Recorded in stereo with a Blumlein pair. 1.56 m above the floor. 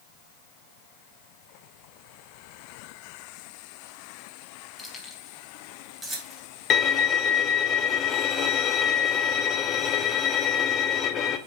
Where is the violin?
30° left, 0.7 m.